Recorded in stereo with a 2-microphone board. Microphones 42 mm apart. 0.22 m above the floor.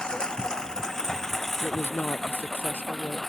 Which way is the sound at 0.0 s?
20° left (ahead or behind).